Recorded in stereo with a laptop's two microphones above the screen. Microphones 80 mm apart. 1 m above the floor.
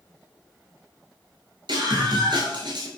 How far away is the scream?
About 7 m.